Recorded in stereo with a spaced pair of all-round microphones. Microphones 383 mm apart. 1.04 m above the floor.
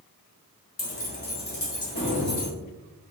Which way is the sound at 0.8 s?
65° left (ahead or behind).